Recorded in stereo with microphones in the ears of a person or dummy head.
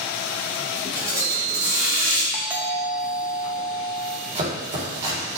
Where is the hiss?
20° right (ahead or behind), 3.5 m.